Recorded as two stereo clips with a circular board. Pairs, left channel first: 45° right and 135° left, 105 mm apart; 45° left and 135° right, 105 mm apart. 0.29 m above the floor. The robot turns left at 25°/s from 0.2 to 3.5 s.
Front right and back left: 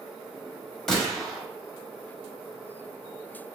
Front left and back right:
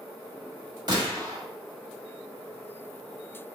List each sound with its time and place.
0.9 s a gunshot: 130° right, 1.0 m; by 1.4 s 145° right, 1.0 m